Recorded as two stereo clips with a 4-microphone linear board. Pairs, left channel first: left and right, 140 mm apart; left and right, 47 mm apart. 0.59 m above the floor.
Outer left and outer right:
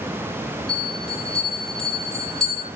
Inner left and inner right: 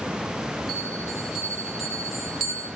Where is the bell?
5° left (ahead or behind), 4 m.